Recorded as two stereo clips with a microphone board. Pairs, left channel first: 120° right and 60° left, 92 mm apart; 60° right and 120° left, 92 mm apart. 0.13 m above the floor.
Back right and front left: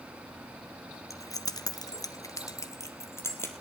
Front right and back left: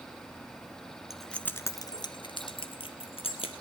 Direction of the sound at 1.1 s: 155° right.